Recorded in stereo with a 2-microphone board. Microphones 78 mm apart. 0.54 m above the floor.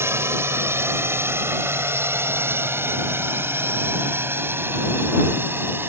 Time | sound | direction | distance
0.0 | a drone | 35° right (ahead or behind) | ?